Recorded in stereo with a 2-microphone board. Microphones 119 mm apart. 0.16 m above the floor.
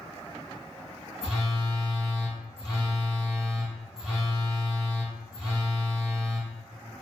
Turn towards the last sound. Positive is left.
turn(degrees=-5)  # may be behind; listen again after turning